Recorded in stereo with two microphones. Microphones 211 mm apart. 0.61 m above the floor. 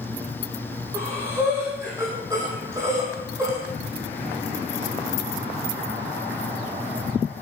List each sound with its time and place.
0.9 s breathing: 15° right (ahead or behind), 4.5 m